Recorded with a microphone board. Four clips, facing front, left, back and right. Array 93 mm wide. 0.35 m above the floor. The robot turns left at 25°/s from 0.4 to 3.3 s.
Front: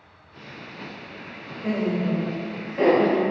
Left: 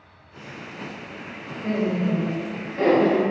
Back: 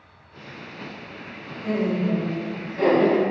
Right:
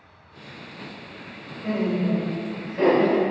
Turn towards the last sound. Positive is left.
turn(degrees=-35)